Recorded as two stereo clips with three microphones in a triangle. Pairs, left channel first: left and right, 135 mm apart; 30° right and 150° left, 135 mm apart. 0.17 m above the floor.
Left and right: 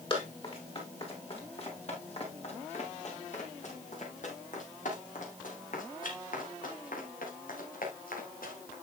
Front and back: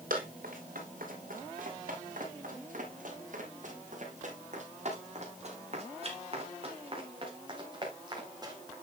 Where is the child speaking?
No child speaking in this recording.